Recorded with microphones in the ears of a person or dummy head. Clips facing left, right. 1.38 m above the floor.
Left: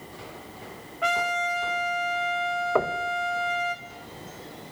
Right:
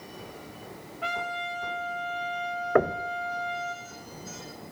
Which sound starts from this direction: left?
A trumpet, at 1.0 s.